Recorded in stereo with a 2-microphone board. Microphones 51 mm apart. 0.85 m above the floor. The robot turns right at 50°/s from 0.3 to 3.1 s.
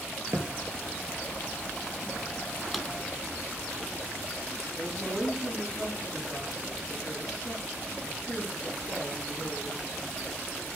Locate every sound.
0.3 s a thud: 60° right (ahead or behind), 4 m; by 0.5 s 70° right (ahead or behind), 4 m
2.7 s a drawer: 5° right (ahead or behind), 1.1 m; by 2.8 s centre (ahead or behind), 1.1 m
4.8 s a woman speaking: 10° right (ahead or behind), 9.5 m